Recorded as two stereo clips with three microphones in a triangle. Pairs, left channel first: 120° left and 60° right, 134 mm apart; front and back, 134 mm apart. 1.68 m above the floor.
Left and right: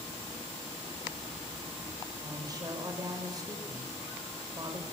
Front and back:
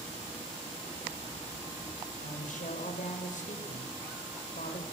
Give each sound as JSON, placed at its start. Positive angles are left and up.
{"t": 2.2, "sound": "a woman speaking", "azimuth_deg": 0, "distance_m": 6.5}